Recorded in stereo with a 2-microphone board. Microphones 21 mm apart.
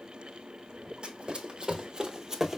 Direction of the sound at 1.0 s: 50° right (ahead or behind).